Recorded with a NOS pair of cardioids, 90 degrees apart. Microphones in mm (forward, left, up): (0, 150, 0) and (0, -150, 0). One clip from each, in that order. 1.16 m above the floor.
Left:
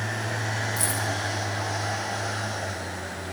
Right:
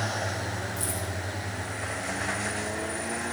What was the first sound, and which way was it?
Keys jangling, 45° left.